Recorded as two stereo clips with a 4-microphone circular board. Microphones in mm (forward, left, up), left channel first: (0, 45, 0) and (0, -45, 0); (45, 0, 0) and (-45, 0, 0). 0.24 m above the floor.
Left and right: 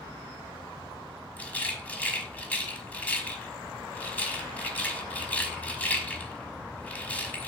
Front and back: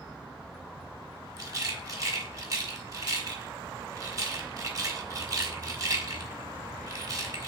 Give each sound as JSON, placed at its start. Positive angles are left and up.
{"t": 1.4, "sound": "a rattle", "azimuth_deg": 155, "distance_m": 1.3}